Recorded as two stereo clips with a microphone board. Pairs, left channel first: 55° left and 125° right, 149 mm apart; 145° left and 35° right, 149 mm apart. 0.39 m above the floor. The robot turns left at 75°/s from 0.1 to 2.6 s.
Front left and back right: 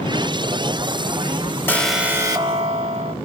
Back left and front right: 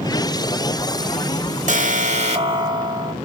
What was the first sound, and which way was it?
An alarm, 20° right.